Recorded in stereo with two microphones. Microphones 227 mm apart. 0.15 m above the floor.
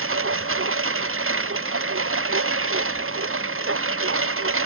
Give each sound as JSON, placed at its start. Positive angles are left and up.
{"t": 0.0, "sound": "a lawn mower", "side_deg": -65}